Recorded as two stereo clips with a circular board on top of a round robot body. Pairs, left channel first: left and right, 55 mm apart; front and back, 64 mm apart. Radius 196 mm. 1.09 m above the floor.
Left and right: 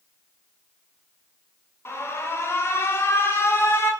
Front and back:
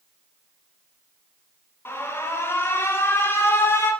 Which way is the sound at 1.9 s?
50° left.